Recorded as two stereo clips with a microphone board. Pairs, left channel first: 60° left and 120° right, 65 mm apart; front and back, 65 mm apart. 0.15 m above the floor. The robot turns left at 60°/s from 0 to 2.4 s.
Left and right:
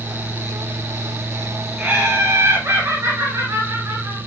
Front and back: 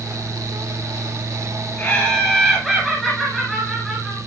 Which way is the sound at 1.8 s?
55° right.